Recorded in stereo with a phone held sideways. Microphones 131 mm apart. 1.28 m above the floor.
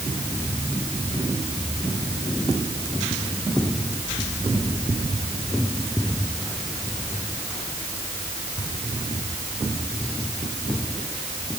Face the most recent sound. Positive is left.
No sound to turn to.